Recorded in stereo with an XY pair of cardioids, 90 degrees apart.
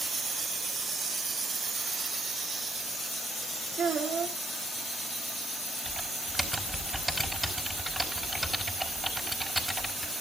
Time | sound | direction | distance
3.8 | a child speaking | 65° right | 2.5 m
5.8 | typing on a keyboard | 5° right | 5 m